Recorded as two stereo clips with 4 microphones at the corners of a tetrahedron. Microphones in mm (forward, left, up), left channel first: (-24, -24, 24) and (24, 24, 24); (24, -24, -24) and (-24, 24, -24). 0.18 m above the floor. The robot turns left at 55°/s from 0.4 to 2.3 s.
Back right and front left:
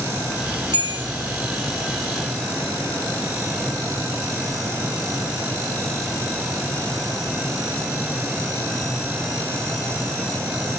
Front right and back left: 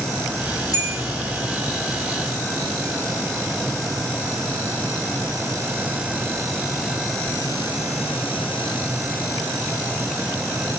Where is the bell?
75° right, 1.8 m; by 1.0 s 95° right, 1.8 m.